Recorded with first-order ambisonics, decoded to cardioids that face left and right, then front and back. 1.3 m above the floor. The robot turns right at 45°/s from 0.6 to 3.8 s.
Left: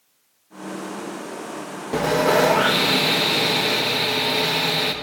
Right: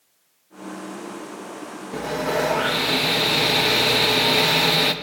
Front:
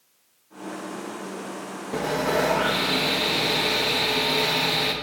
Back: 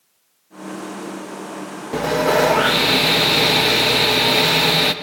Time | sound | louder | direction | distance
1.9 | sawing | left 6 dB, back 7 dB | 125° left | 0.6 m